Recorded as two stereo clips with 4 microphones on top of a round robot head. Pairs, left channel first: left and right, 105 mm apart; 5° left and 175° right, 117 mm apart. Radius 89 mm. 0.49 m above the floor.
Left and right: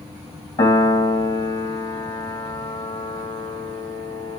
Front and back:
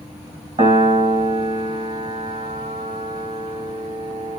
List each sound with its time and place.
0.6 s a piano: 145° left, 1.7 m